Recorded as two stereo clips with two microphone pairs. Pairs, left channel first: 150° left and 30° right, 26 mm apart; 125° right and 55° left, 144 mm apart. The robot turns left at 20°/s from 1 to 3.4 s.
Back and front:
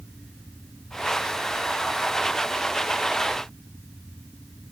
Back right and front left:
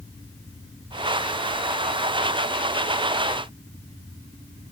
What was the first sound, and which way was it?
Only background noise.